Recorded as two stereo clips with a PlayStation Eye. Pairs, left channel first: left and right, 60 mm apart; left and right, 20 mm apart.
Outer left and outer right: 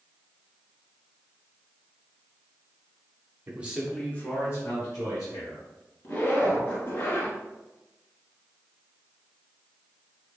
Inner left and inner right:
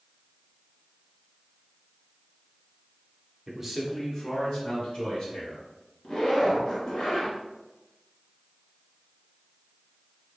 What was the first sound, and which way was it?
A man speaking, 25° right (ahead or behind).